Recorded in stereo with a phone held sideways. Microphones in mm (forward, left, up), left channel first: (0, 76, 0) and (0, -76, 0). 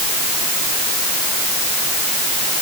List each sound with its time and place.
Only background noise.